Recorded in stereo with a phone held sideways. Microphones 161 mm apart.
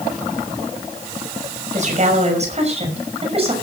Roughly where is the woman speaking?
Right.